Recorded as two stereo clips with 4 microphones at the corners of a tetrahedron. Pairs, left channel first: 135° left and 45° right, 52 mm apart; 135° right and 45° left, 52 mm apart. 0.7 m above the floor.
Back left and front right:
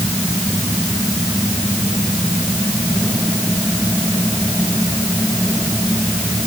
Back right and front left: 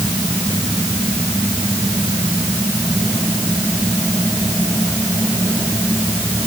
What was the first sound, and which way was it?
Only background noise.